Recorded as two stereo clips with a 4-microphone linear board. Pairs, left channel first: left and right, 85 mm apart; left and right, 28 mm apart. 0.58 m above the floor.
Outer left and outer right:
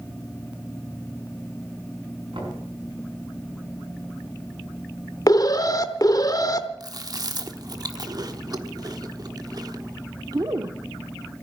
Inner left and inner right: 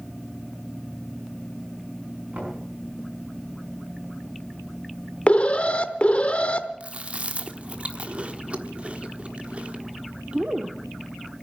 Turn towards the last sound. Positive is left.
turn(degrees=-45)  # may be behind; listen again after turning